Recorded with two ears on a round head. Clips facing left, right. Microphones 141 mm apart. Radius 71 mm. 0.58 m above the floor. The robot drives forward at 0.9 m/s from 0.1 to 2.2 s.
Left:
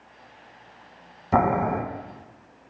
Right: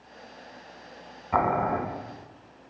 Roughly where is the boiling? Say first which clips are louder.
Left 3 dB; left.